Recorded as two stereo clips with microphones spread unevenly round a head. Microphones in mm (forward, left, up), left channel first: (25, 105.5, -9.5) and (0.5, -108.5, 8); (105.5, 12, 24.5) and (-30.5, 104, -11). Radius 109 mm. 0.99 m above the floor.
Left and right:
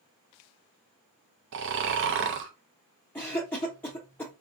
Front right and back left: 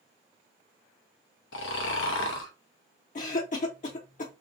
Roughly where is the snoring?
Ahead right.